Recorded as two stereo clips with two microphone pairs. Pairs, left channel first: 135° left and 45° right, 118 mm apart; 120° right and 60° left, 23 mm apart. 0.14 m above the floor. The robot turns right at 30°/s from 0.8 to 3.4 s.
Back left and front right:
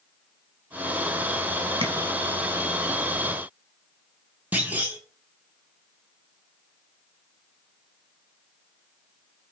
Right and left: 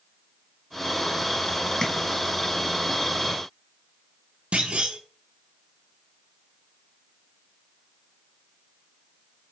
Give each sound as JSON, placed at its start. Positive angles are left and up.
{"t": 1.8, "sound": "tapping", "azimuth_deg": -60, "distance_m": 0.8}
{"t": 4.5, "sound": "a clunk", "azimuth_deg": 30, "distance_m": 0.8}